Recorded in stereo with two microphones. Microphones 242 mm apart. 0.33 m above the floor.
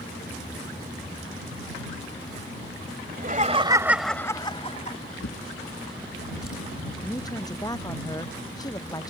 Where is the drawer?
75° left (ahead or behind).